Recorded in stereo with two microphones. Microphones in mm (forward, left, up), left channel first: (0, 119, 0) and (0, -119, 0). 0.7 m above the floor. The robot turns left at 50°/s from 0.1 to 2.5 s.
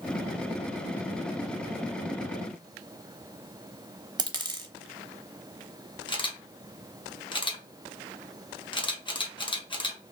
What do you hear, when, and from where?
4.2 s a dropped coin: 20° right (ahead or behind), 0.7 m
6.1 s a camera shutter: 20° left (ahead or behind), 0.7 m